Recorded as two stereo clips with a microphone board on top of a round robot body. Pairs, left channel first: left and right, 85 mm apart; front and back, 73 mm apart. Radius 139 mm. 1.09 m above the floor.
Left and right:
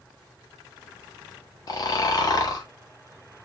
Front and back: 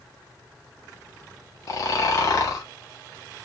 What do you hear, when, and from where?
1.7 s snoring: 45° left, 0.6 m